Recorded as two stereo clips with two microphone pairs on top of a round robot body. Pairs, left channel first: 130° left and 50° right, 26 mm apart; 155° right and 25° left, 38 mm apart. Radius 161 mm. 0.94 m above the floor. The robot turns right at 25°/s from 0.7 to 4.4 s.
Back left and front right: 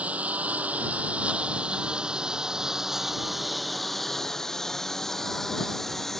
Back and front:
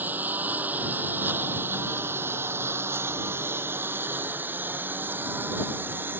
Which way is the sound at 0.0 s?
20° right.